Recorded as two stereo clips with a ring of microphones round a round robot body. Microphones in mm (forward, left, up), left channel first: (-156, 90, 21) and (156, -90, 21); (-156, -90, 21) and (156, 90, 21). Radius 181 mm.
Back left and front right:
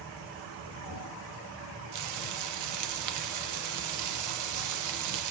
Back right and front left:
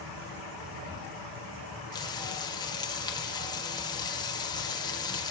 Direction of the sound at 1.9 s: 70° right.